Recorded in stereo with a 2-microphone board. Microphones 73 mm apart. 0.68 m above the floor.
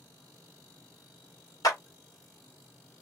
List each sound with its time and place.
1.6 s a clap: 55° left (ahead or behind), 1.6 m